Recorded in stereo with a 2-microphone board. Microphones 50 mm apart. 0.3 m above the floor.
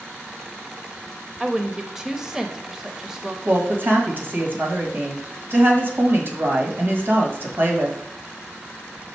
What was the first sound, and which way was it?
A woman speaking, 15° right (ahead or behind).